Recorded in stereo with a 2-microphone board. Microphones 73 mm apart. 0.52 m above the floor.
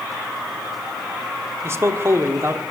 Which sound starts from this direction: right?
A man speaking, at 1.6 s.